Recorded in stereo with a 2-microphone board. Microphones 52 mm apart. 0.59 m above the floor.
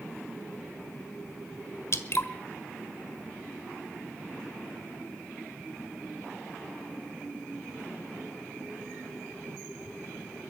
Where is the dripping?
50° left (ahead or behind), 1.4 m.